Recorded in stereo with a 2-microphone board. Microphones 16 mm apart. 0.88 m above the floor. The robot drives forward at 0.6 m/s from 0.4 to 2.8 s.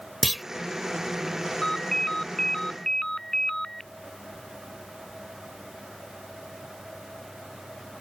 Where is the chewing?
I don't hear chewing.